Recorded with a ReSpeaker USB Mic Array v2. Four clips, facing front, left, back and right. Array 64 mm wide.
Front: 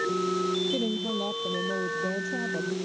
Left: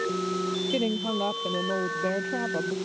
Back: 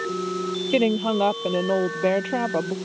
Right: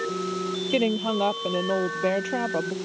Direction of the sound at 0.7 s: 165° right.